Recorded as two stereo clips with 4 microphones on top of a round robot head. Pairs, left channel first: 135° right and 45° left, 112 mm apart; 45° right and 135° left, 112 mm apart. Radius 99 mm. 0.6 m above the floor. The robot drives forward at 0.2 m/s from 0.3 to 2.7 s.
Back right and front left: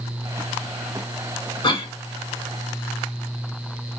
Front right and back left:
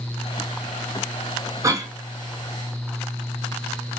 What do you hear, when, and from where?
1.6 s a cough: 170° right, 2.0 m